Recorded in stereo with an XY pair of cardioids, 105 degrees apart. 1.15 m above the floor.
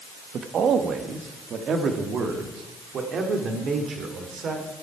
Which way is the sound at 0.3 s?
55° right.